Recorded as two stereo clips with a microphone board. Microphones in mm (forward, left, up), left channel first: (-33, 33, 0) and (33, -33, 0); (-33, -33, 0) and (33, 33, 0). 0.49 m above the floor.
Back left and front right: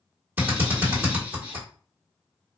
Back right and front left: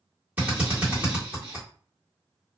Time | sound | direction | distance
0.4 | a drill | 5° right | 1.5 m